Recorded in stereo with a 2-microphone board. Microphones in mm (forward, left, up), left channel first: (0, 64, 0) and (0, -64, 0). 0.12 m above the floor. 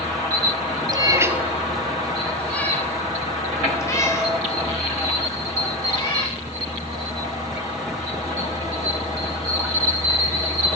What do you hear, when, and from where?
0.9 s a cat meowing: 35° right (ahead or behind), 0.7 m; by 6.4 s 30° left (ahead or behind), 3.5 m